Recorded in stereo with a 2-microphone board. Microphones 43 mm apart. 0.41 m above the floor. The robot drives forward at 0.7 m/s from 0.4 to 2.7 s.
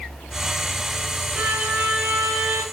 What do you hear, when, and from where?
1.4 s a violin: 30° right (ahead or behind), 4.5 m; by 2.6 s 25° right (ahead or behind), 5 m